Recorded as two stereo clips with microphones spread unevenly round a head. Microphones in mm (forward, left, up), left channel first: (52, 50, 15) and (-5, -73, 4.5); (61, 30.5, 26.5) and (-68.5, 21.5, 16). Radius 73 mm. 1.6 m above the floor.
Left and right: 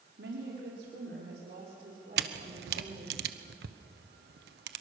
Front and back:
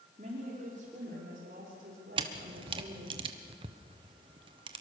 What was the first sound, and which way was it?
A woman speaking, 125° right.